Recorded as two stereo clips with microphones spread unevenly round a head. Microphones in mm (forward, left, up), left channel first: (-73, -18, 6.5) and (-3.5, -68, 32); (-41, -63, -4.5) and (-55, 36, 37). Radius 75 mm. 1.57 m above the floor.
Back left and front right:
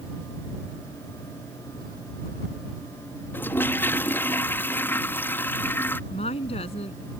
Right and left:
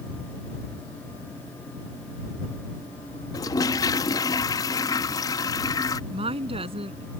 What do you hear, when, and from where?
3.3 s a toilet flushing: 140° right
6.1 s a woman speaking: 125° left